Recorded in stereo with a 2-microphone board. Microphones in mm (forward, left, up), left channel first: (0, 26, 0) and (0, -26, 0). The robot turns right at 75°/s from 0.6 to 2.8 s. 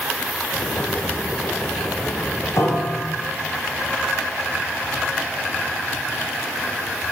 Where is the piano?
65° left (ahead or behind), 1.9 m.